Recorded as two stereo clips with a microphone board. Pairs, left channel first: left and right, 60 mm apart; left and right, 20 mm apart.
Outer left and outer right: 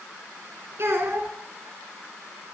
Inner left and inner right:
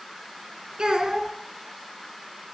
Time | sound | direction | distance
0.8 | a child speaking | 50° right (ahead or behind) | 1.7 m